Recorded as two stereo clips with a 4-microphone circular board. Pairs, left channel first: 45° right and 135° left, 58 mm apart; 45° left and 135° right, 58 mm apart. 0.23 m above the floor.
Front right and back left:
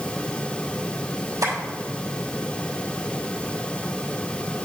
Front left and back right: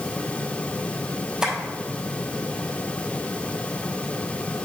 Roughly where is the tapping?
Behind left.